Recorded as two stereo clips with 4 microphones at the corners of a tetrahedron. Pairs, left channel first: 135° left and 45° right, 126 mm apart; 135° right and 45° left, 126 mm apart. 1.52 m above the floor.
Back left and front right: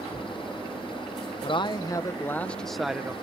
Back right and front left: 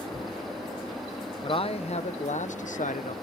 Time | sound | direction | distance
1.4 | a man speaking | straight behind | ?